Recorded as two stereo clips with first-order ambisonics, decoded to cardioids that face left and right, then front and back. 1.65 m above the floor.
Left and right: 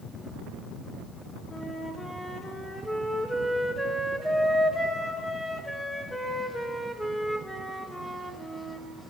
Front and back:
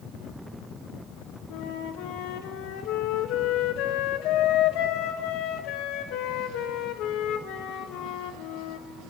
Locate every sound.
1.5 s a flute: straight ahead, 1.3 m